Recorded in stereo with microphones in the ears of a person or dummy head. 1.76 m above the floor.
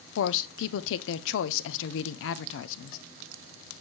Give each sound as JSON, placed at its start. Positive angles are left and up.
{"t": 0.2, "sound": "a woman speaking", "side_deg": 70, "distance_m": 0.6}